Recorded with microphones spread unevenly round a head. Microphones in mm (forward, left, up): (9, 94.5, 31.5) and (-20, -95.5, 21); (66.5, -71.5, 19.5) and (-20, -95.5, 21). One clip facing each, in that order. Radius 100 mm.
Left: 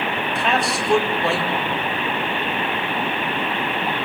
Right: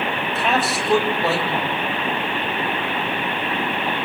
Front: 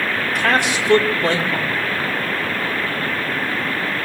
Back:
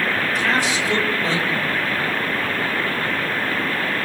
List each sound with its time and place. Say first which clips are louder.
0.3 s a man speaking: right 1 dB, front 5 dB; 10° right, 5 m